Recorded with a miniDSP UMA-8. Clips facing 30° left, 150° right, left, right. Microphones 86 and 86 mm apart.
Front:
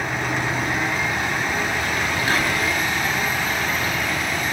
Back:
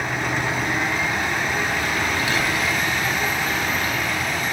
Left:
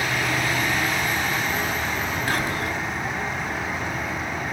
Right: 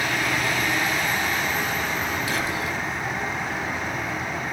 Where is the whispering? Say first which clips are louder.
Front 1 dB, left 1 dB; 70° left, 2.5 m.